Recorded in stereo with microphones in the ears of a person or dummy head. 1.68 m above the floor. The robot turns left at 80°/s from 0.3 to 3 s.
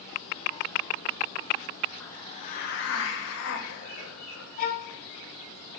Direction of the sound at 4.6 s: 45° left (ahead or behind).